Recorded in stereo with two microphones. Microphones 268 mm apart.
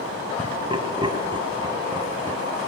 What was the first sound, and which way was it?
Laughter, 20° right (ahead or behind).